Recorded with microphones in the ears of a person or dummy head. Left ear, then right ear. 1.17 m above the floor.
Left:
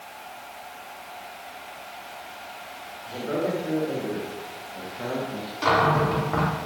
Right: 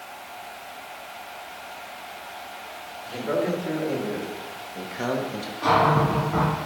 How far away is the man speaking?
About 2.5 m.